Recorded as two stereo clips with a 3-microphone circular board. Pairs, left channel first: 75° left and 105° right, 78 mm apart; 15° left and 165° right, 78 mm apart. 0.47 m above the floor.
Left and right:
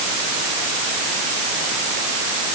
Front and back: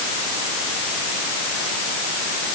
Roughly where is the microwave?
No microwave in this recording.